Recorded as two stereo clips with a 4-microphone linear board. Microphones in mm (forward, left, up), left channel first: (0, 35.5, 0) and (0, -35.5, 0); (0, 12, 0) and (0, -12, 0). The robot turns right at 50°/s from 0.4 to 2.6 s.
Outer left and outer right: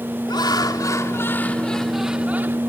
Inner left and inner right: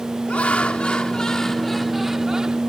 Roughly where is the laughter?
Left.